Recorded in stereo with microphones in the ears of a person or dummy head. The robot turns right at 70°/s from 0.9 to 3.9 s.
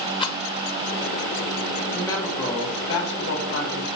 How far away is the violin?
I don't hear a violin.